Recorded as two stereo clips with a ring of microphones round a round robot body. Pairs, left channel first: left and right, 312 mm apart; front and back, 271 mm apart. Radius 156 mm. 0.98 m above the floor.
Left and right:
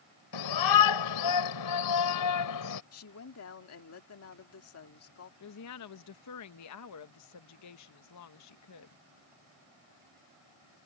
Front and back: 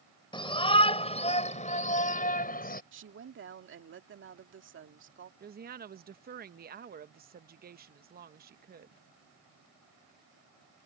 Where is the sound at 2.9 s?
135° left.